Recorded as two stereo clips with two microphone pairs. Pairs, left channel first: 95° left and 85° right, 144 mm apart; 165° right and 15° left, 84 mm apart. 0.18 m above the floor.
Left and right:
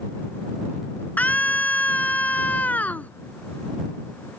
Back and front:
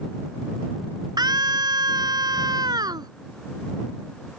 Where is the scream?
20° left.